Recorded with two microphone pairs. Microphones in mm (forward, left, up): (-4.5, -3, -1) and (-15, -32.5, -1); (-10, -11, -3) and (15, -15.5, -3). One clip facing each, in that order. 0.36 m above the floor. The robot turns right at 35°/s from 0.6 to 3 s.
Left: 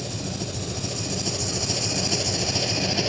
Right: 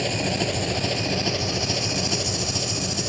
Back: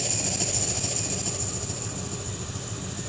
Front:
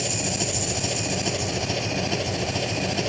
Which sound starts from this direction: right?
An engine running, at 0.0 s.